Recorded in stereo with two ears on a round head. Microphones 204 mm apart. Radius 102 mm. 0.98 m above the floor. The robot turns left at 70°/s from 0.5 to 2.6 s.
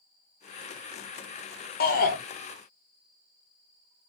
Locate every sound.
1.8 s a shout: 45° left (ahead or behind), 1.1 m; by 2.2 s 35° left (ahead or behind), 1.1 m